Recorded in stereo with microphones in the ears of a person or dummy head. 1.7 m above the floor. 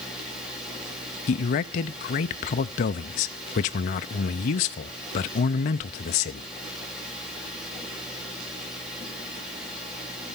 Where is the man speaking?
45° left (ahead or behind), 0.5 m.